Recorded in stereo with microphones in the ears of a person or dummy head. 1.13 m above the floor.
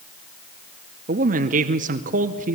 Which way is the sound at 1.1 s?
35° right (ahead or behind).